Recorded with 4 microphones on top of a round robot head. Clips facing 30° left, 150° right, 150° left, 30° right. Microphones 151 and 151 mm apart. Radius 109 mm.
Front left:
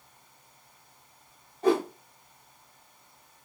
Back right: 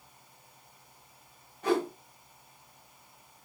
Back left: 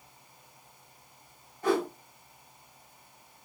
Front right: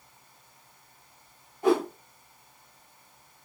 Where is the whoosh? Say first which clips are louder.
Front left 4 dB, front right 4 dB; 15° left, 0.5 m.